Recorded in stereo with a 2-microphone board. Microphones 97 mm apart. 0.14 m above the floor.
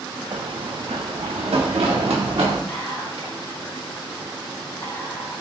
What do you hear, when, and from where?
0.3 s running footsteps: 55° right (ahead or behind), 0.6 m; by 2.6 s 85° right, 1.9 m
2.7 s whispering: 50° left (ahead or behind), 2.0 m